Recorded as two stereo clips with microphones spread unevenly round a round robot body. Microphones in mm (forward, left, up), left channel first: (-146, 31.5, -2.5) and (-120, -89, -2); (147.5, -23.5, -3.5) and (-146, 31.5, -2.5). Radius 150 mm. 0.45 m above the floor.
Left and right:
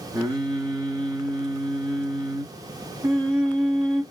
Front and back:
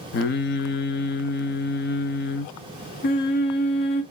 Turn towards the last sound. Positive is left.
turn(degrees=-30)